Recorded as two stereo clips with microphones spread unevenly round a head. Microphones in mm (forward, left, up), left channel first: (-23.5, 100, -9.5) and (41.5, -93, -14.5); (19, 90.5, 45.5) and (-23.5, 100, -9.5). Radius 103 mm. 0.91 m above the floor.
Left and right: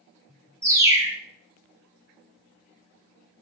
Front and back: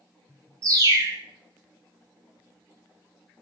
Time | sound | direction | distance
0.6 | a bird | 150° right | 0.6 m